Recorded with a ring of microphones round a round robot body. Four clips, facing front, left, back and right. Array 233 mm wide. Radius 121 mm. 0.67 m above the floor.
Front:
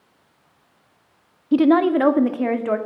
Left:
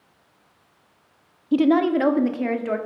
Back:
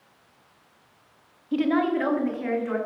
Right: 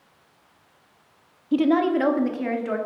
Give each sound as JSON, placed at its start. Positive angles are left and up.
{"t": 1.5, "sound": "a woman speaking", "azimuth_deg": 10, "distance_m": 0.6}